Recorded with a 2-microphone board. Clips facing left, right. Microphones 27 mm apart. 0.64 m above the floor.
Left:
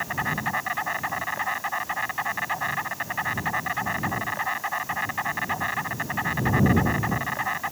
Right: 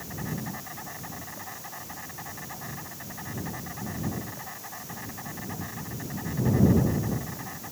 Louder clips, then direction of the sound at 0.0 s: Left 9 dB; 55° left (ahead or behind).